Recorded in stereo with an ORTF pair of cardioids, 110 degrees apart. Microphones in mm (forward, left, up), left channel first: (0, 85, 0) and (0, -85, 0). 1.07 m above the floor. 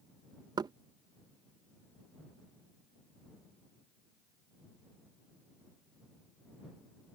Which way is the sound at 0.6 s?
25° right.